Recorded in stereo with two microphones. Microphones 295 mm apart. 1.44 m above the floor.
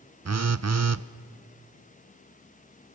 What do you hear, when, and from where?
0.2 s a phone buzzing: 60° right (ahead or behind), 0.5 m